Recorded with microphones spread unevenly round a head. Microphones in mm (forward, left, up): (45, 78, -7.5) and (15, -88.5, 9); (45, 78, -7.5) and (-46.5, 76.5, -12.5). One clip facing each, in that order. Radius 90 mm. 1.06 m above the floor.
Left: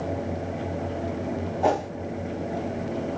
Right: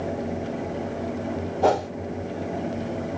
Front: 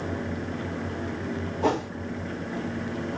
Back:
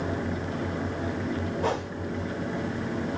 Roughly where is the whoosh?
Ahead right.